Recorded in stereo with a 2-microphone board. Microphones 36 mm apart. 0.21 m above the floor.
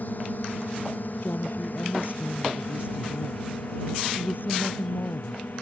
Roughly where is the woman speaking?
Left.